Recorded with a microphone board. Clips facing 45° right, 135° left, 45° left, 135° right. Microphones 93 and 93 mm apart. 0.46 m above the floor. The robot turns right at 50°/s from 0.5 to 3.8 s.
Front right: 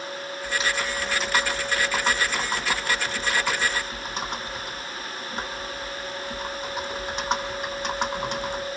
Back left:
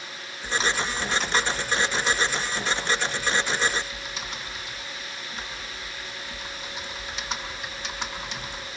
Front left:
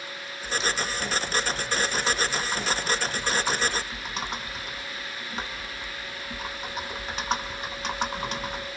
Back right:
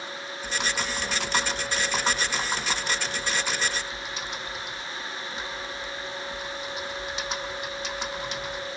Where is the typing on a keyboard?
165° right, 3 m; by 8.7 s straight ahead, 3 m.